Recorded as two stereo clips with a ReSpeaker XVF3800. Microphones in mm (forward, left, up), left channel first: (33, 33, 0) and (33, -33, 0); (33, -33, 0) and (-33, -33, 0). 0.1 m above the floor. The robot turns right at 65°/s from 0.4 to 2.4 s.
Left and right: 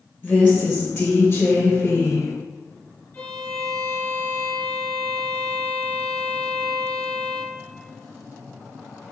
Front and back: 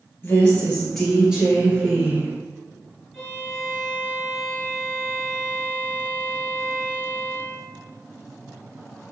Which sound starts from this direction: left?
A violin, at 3.1 s.